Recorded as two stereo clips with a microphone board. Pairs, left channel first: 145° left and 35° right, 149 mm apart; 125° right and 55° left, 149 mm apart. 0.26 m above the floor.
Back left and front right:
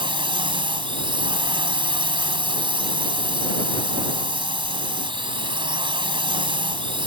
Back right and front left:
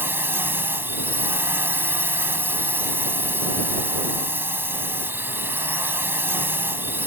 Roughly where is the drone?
Ahead.